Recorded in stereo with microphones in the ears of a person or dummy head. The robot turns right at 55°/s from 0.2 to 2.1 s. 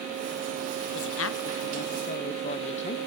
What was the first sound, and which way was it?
A woman speaking, 75° left.